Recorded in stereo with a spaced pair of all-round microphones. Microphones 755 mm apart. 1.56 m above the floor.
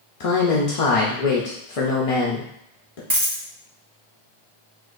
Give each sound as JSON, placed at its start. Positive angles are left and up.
{"t": 0.2, "sound": "a man speaking", "side_deg": 50, "distance_m": 0.7}
{"t": 3.1, "sound": "a dropped coin", "side_deg": -30, "distance_m": 1.0}